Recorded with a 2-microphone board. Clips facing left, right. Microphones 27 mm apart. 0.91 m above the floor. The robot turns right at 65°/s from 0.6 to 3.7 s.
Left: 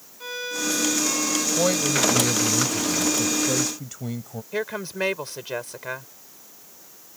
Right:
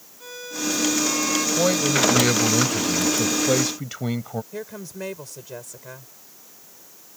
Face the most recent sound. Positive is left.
turn(degrees=55)  # may be behind; listen again after turning